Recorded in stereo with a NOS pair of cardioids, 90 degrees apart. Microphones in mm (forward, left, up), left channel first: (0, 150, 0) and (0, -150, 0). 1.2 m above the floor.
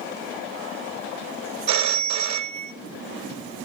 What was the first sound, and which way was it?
A phone ringing, 70° right.